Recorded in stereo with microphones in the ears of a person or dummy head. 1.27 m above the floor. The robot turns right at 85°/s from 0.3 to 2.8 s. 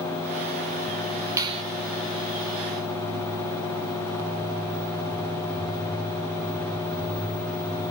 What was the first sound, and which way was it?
A finger snap, 20° right (ahead or behind).